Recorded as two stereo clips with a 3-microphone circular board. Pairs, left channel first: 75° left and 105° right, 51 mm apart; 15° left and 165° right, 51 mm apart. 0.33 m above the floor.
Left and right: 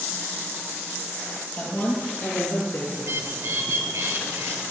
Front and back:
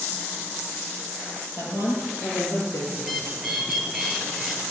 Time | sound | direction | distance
1.6 | a woman speaking | 10° left | 8 m
3.0 | a bird | 80° right | 3.5 m